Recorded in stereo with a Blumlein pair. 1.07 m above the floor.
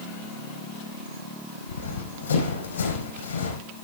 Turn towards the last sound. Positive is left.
turn(degrees=70)